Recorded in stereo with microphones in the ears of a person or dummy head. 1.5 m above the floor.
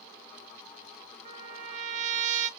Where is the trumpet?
40° right (ahead or behind), 0.9 m.